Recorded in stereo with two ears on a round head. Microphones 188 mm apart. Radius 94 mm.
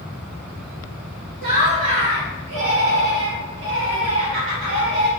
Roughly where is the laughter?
Right.